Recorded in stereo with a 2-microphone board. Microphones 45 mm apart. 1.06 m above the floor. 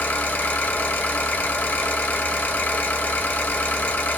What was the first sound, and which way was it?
An engine running, 45° left (ahead or behind).